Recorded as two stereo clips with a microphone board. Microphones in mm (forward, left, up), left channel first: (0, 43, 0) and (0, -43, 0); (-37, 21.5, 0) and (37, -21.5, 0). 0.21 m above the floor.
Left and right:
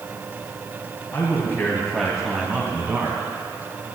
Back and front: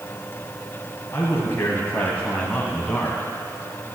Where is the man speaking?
115° left, 1.6 m; by 3.2 s 130° right, 1.9 m.